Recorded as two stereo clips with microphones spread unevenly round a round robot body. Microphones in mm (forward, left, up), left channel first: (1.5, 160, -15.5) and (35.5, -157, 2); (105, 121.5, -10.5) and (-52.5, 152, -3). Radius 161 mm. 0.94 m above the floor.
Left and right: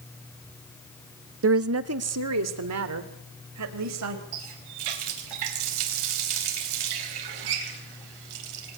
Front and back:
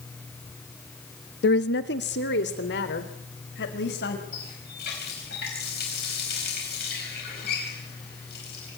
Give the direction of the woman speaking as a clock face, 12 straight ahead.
1 o'clock.